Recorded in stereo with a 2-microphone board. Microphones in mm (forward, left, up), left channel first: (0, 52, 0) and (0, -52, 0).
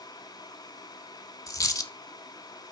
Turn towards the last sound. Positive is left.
turn(degrees=35)  # may be behind; listen again after turning